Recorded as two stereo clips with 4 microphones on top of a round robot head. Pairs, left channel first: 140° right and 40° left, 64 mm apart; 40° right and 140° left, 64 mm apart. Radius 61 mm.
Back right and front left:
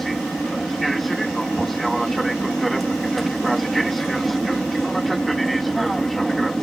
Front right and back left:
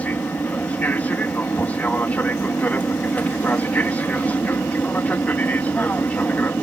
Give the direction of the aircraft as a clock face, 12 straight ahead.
2 o'clock.